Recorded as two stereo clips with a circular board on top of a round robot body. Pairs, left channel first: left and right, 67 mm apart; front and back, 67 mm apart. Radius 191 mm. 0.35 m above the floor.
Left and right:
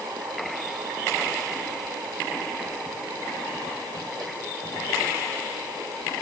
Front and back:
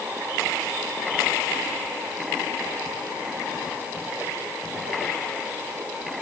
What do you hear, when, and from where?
Only background noise.